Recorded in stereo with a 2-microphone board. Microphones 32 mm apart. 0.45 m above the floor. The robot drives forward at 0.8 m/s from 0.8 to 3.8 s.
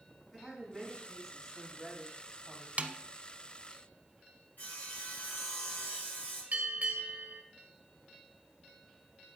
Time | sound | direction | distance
0.3 | a woman speaking | 5° left (ahead or behind) | 4 m
2.8 | a snare drum | 45° right (ahead or behind) | 0.6 m
4.6 | sawing | 55° left (ahead or behind) | 6 m
6.5 | a bell | 55° right (ahead or behind) | 1.9 m